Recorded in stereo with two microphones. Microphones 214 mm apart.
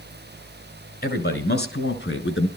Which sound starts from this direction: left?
A man speaking, at 1.0 s.